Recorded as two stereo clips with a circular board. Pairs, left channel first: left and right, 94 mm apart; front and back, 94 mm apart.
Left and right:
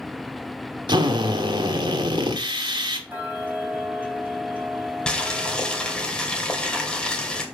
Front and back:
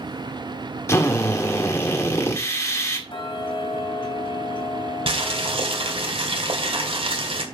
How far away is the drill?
About 1.8 m.